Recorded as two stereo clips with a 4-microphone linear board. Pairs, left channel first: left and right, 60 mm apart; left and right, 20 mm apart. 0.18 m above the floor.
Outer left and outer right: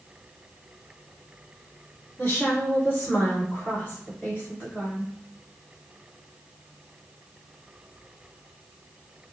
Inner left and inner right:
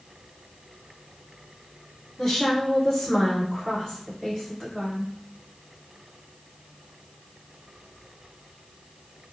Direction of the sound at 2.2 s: 35° left (ahead or behind).